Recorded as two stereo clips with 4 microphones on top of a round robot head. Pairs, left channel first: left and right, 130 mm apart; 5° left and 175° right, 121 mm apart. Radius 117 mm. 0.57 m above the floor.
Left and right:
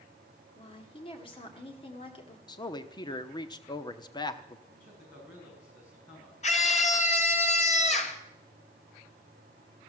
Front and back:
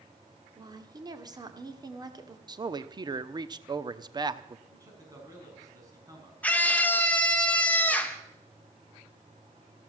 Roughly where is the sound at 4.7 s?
Behind left.